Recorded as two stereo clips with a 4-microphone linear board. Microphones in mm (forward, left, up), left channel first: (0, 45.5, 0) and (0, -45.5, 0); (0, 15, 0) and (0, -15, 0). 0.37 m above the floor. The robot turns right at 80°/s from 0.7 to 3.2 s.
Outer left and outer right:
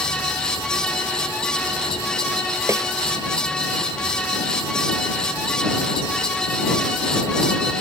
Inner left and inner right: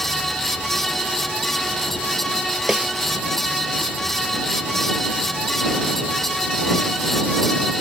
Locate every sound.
2.7 s a snare drum: 30° right (ahead or behind); by 2.9 s 45° right (ahead or behind)